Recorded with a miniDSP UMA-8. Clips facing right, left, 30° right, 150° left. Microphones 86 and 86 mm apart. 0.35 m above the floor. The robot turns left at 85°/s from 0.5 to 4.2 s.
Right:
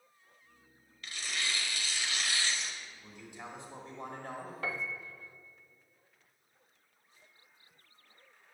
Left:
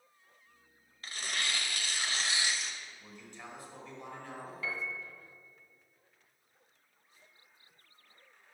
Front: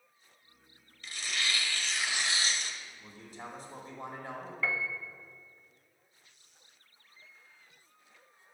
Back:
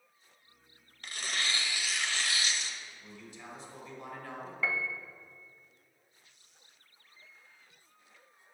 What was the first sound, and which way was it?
Tearing paper, 140° left.